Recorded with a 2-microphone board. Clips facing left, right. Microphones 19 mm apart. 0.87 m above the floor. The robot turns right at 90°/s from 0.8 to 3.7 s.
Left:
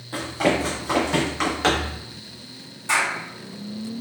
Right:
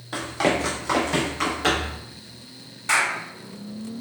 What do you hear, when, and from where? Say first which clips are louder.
0.1 s running footsteps: left 1 dB; 30° right (ahead or behind), 1.4 m; by 2.0 s 65° left (ahead or behind), 2.5 m
2.9 s a clap: even; 30° right (ahead or behind), 2 m; by 3.1 s 50° right (ahead or behind), 2 m